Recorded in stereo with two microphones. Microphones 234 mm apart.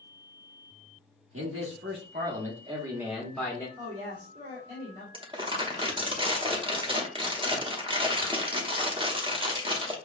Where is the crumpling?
20° right (ahead or behind), 0.8 m.